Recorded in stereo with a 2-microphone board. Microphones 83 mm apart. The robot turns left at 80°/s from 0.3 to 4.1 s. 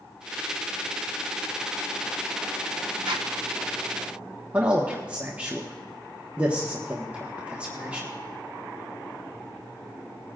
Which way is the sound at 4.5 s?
15° right (ahead or behind).